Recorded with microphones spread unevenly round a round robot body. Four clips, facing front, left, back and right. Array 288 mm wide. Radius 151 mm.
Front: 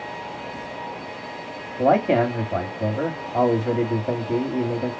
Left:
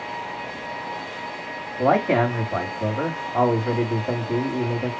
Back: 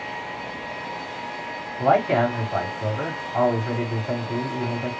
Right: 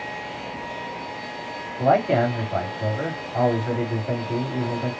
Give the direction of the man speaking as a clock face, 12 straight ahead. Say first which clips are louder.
Even, front 1 dB; 12 o'clock.